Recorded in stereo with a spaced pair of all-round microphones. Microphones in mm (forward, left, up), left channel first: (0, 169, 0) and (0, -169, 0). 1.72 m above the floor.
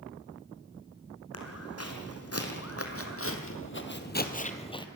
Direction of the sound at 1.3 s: 45° left (ahead or behind).